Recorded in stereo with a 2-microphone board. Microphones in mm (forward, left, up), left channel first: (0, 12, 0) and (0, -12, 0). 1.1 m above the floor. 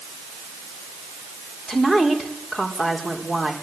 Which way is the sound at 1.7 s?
20° left (ahead or behind).